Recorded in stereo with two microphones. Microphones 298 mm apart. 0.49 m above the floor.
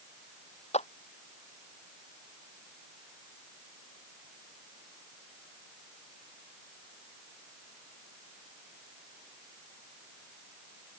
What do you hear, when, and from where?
0.7 s a clap: 20° left (ahead or behind)